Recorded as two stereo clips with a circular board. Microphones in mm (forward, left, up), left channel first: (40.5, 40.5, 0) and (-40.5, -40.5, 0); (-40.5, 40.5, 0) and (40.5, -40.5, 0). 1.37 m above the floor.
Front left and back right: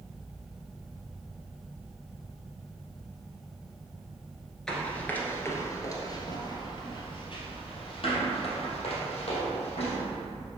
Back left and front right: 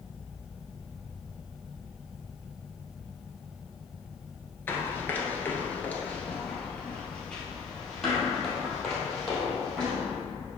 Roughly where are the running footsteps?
Behind left.